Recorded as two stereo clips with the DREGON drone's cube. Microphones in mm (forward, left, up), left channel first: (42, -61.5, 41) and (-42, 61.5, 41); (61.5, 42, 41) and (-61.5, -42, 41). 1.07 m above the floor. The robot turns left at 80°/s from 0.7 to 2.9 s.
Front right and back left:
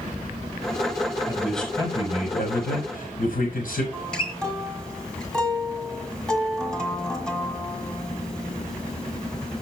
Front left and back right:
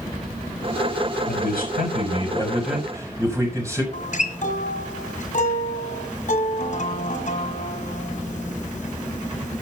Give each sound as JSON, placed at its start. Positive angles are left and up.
{"t": 1.3, "sound": "a man speaking", "azimuth_deg": 55, "distance_m": 4.0}
{"t": 3.9, "sound": "a guitar", "azimuth_deg": 30, "distance_m": 1.6}